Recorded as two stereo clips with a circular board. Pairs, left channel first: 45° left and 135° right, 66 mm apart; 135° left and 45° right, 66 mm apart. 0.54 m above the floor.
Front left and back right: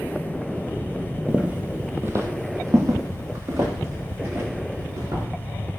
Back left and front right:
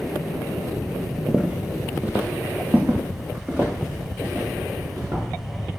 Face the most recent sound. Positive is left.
turn(degrees=-105)